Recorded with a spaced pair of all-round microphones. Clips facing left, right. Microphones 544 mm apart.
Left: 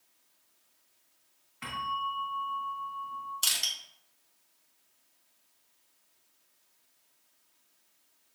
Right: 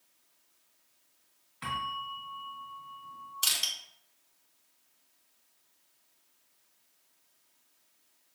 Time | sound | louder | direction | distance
1.6 | a bell | left 2 dB | 10° left (ahead or behind) | 1.6 m
3.4 | crushing | right 1 dB | 30° right (ahead or behind) | 1.0 m